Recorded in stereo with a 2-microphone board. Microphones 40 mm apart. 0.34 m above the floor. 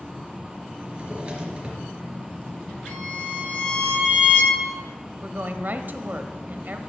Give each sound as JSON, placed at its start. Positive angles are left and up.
{"t": 0.8, "sound": "a drawer", "side_deg": -30, "distance_m": 3.5}
{"t": 2.9, "sound": "a violin", "side_deg": 60, "distance_m": 7.0}
{"t": 5.2, "sound": "a woman speaking", "side_deg": -50, "distance_m": 1.3}